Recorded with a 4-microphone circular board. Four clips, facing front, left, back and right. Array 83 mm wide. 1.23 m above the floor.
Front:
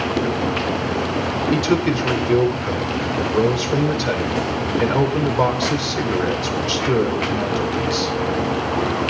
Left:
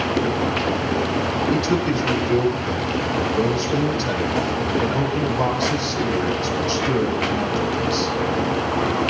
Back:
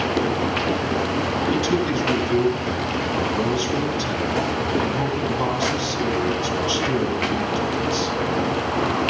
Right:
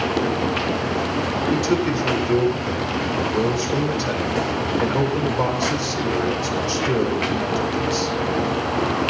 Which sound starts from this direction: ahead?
A man speaking, at 1.5 s.